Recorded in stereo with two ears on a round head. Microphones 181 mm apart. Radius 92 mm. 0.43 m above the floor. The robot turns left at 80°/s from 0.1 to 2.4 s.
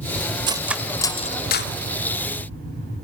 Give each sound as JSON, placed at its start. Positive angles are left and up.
{"t": 0.5, "sound": "cutlery clinking", "side_deg": -25, "distance_m": 0.8}